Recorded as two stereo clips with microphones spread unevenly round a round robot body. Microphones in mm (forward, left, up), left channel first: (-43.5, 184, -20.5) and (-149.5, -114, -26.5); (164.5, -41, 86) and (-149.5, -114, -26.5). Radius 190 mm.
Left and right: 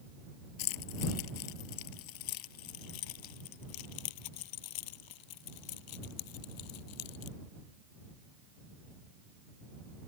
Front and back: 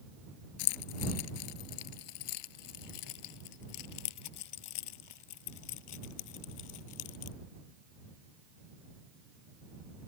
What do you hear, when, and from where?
0.6 s keys jangling: 35° left